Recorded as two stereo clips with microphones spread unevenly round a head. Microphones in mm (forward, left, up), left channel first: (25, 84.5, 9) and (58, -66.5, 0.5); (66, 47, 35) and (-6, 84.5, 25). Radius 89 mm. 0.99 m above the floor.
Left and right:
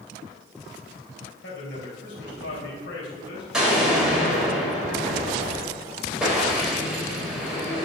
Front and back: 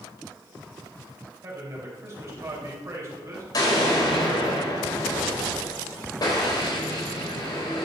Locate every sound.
1.4 s a man speaking: 100° left, 4.5 m
3.5 s an explosion: 10° left, 4 m